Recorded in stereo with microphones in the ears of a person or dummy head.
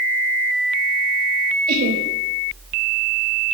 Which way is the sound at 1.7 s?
50° right (ahead or behind).